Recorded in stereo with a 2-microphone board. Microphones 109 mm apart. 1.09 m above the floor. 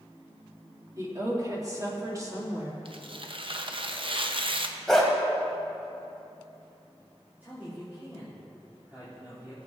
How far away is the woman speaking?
About 2 m.